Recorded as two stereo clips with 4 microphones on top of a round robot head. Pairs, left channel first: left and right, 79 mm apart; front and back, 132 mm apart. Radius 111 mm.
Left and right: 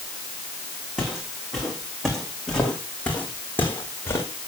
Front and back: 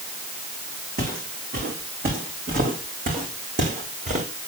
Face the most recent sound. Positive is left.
turn(degrees=150)